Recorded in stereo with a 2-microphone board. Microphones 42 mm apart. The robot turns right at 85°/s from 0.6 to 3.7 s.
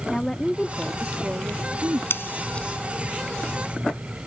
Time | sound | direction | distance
0.1 | a woman speaking | 165° left | ?
2.1 | scissors | 65° left (ahead or behind) | ?